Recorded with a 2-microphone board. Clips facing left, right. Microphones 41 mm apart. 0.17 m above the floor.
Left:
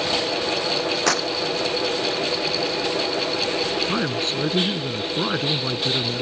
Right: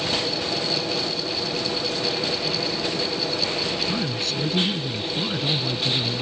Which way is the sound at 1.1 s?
80° left.